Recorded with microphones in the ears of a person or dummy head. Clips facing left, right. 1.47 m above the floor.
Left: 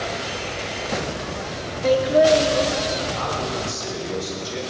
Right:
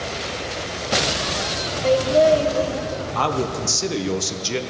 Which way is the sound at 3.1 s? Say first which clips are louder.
Right 3 dB; 75° right (ahead or behind).